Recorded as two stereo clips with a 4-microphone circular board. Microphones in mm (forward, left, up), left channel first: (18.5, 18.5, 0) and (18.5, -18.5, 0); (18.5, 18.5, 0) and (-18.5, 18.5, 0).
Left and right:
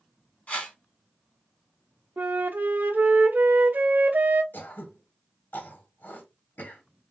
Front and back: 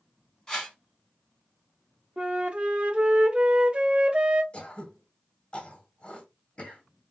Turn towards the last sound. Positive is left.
turn(degrees=60)